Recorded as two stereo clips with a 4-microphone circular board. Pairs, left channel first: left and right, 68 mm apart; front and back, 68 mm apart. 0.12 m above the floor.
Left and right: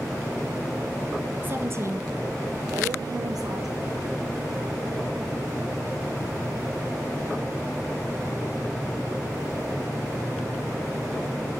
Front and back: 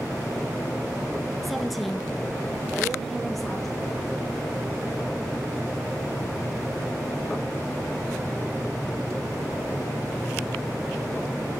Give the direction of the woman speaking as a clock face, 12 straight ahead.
3 o'clock.